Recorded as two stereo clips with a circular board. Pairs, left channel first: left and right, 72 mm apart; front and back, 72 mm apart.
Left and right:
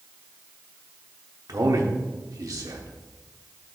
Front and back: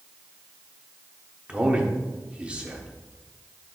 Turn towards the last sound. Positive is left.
turn(degrees=-110)